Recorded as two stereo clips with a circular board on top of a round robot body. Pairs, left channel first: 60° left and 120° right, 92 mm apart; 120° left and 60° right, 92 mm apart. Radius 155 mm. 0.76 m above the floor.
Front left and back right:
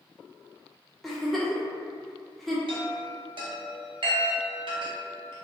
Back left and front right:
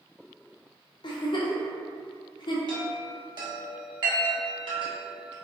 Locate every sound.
1.0 s a giggle: 150° left, 0.7 m
2.7 s a chime: 95° right, 0.8 m